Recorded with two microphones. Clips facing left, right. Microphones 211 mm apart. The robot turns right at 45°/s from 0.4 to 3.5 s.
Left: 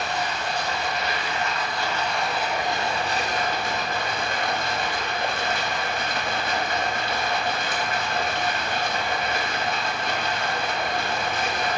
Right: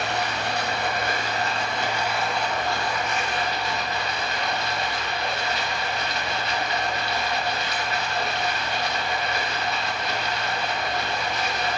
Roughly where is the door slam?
No door slam in this recording.